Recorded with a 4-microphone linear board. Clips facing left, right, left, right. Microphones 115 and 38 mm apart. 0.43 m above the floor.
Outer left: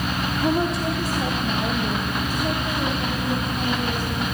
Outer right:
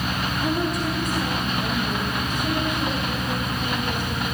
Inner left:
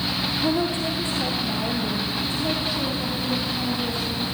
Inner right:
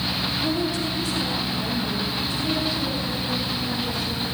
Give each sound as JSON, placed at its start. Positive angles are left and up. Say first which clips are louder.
{"t": 0.4, "sound": "a woman speaking", "louder": "outer left 3 dB, inner left 3 dB", "side_deg": 30, "distance_m": 1.8}